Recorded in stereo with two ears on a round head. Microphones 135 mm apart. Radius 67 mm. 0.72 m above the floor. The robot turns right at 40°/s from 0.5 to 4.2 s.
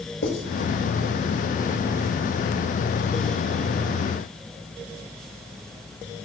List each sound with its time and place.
0.2 s writing: 80° left, 6.5 m